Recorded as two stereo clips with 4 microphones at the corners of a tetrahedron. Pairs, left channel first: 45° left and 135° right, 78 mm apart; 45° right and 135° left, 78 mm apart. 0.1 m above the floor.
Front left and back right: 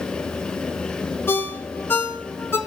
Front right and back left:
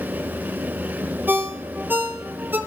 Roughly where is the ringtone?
Left.